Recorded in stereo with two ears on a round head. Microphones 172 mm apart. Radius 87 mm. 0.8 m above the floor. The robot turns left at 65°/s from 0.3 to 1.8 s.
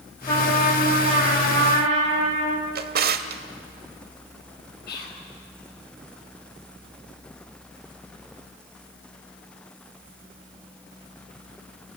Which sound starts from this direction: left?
Whispering, at 4.9 s.